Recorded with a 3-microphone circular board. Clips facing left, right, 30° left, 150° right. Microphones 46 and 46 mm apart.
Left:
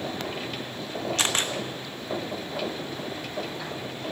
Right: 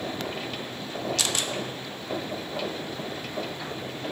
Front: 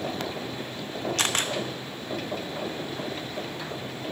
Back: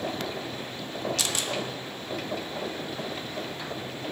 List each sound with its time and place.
1.2 s a camera shutter: 50° left, 1.0 m